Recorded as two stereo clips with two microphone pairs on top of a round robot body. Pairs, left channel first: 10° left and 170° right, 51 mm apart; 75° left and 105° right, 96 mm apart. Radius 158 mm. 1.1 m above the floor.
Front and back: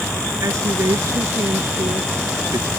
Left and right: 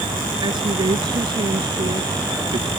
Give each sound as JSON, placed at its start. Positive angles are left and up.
{"t": 0.4, "sound": "a woman speaking", "azimuth_deg": -150}